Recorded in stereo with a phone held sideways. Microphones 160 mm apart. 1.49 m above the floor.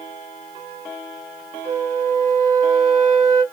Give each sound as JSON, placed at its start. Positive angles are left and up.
{"t": 1.6, "sound": "a flute", "side_deg": -20, "distance_m": 1.7}